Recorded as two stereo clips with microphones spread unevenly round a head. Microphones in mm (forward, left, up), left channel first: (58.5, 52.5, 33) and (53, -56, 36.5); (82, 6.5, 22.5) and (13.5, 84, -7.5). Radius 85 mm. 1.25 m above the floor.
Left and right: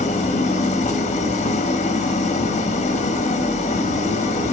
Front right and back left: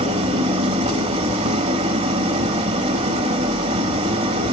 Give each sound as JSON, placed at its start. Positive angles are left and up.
{"t": 0.0, "sound": "an engine running", "azimuth_deg": 120, "distance_m": 1.1}